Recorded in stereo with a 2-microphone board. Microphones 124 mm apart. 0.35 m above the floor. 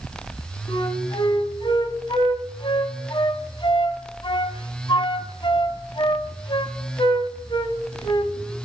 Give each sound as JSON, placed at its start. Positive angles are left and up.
{"t": 0.7, "sound": "a flute", "side_deg": 40, "distance_m": 1.5}